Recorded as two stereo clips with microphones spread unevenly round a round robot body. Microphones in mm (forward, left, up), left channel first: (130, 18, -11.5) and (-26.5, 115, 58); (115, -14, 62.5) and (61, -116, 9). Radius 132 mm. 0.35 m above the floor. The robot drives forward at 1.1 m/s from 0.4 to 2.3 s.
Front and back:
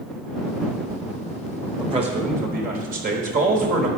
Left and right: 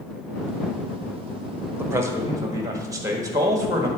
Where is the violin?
No violin in this recording.